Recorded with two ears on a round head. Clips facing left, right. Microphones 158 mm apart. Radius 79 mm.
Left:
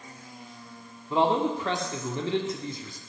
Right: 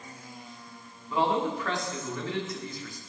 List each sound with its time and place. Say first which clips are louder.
1.1 s a man speaking: left 3 dB; 20° left (ahead or behind), 0.8 m